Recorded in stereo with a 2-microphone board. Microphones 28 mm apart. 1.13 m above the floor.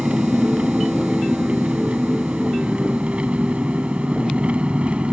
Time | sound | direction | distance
0.0 | an engine running | 45° right (ahead or behind) | ?